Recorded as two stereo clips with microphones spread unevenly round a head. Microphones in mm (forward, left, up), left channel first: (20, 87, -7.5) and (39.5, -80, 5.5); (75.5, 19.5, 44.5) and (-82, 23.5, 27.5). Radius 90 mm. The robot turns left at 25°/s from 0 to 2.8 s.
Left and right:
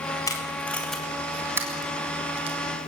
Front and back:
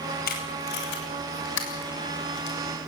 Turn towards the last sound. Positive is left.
turn(degrees=-40)